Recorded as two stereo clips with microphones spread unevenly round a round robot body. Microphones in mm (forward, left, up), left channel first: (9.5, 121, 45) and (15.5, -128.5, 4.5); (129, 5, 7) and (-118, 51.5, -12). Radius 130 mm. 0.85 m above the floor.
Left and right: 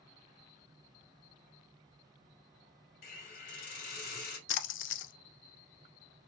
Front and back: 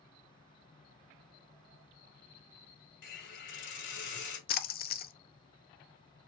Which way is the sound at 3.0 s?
35° left.